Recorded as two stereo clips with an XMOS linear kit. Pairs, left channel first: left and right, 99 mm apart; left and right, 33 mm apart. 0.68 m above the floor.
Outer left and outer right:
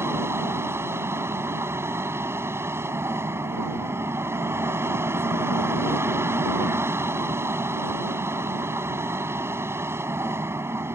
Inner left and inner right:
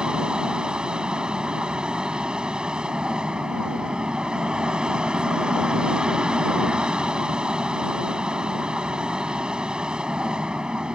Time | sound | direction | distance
0.0 | an aircraft | 25° right (ahead or behind) | ?